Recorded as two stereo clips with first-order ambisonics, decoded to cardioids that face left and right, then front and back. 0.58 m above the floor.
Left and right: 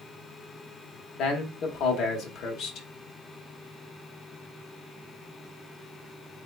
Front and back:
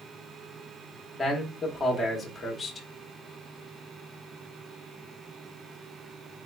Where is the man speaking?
75° left, 0.7 m.